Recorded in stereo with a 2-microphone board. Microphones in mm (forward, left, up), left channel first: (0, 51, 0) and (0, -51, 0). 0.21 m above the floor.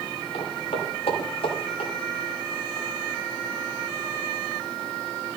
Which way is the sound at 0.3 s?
75° left (ahead or behind).